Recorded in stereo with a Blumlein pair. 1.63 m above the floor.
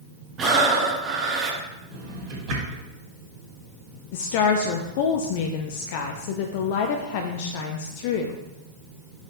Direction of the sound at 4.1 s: 50° left.